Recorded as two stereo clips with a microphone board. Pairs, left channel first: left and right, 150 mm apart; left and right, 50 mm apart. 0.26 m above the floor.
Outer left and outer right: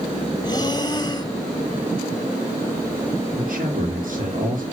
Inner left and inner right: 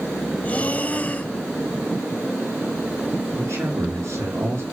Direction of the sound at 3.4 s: 65° right (ahead or behind).